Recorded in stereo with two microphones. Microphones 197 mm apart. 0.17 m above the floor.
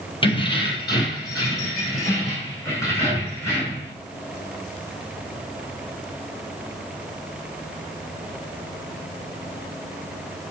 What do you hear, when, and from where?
0.2 s keys jangling: 25° left (ahead or behind), 3 m; by 3.9 s 15° left (ahead or behind), 8 m